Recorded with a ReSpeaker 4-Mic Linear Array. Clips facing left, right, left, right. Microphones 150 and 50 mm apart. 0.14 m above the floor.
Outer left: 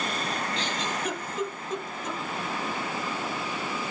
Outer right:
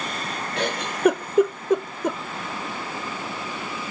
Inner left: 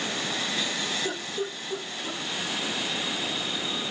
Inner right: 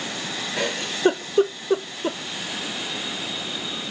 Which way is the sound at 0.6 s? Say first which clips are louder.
Outer right 6 dB, inner right 5 dB; 60° right (ahead or behind).